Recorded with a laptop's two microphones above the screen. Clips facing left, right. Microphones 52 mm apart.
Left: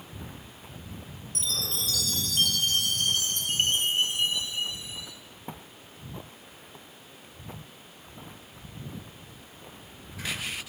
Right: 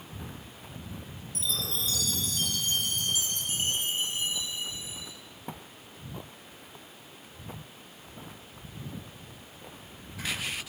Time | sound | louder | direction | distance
1.4 | a chime | even | 65° left (ahead or behind) | 4 m